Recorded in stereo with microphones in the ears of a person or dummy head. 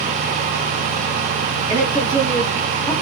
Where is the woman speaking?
10° right (ahead or behind), 4 m; by 2.9 s 10° left (ahead or behind), 3.5 m.